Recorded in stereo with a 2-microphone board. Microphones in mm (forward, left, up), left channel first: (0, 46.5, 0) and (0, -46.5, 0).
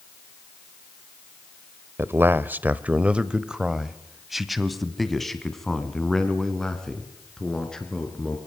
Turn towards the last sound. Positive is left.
turn(degrees=10)  # may be behind; listen again after turning